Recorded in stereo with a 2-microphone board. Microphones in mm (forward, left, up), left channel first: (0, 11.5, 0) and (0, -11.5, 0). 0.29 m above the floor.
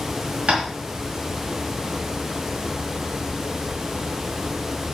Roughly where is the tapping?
Right.